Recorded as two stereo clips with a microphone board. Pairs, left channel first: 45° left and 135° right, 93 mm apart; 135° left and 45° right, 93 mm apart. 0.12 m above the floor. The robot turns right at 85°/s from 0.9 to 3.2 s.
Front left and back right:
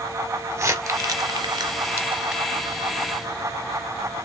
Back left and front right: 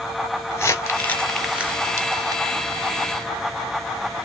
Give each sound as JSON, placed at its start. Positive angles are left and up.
{"t": 0.5, "sound": "crumpling", "azimuth_deg": 180, "distance_m": 1.1}